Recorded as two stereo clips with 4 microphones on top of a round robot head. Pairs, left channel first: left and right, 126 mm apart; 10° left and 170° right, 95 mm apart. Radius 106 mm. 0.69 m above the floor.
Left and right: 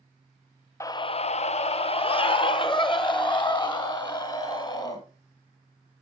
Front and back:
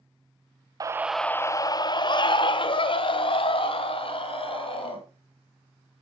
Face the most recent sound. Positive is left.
turn(degrees=35)